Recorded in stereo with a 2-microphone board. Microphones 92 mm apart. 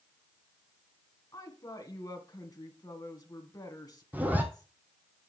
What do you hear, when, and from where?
1.3 s a woman speaking: 45° left (ahead or behind), 1.9 m
4.1 s a zipper: 20° right (ahead or behind), 1.7 m